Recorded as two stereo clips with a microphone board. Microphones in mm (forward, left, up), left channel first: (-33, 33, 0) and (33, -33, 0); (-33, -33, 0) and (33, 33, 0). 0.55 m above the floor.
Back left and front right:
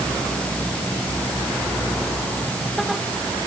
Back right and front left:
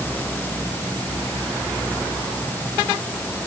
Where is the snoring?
I don't hear snoring.